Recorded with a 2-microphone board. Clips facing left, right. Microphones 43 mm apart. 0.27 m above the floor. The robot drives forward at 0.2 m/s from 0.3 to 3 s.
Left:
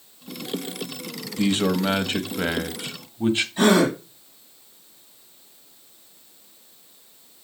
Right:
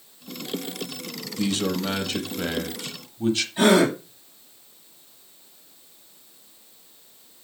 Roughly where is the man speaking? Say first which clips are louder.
Left 4 dB; left.